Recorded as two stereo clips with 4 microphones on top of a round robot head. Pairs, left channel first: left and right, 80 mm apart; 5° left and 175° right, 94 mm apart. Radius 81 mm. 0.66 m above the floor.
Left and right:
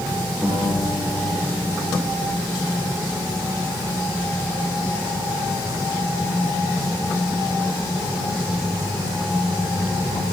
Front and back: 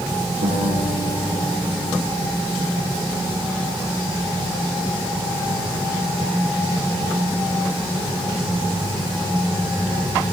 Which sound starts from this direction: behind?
A guitar, at 0.4 s.